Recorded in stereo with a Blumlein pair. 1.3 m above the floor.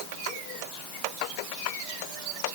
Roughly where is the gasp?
I don't hear a gasp.